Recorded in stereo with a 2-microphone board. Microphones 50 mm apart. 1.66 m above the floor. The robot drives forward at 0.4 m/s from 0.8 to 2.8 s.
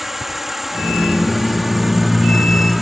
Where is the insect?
5° right (ahead or behind).